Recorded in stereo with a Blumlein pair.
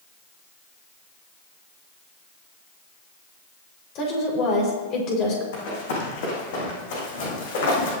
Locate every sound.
4.0 s a woman speaking: 35° left, 6 m
5.5 s running footsteps: 50° left, 6 m